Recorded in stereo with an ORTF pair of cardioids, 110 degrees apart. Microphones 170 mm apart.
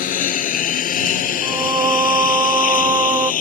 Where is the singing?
20° right.